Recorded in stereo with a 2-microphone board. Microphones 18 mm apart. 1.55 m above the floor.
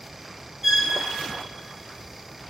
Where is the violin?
10° right (ahead or behind), 3 m.